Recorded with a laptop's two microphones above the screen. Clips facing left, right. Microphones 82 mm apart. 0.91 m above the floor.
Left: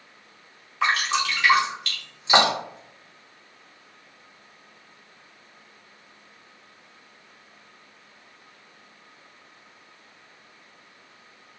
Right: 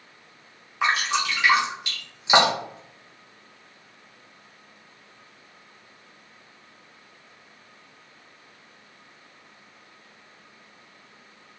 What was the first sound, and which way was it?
Dripping, 15° right (ahead or behind).